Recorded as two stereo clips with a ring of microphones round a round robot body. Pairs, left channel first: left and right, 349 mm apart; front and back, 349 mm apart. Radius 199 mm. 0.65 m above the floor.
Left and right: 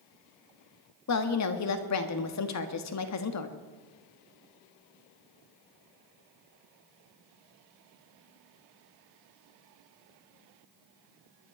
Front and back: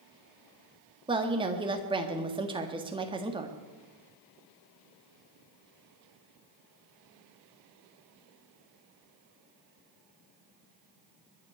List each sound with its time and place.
1.1 s a woman speaking: 110° left, 1.5 m